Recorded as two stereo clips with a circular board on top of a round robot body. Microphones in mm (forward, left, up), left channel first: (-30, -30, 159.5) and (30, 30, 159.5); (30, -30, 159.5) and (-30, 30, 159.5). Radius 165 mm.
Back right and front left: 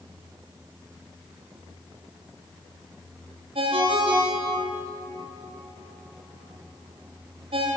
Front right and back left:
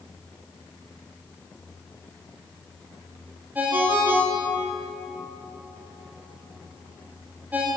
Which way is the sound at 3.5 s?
60° left.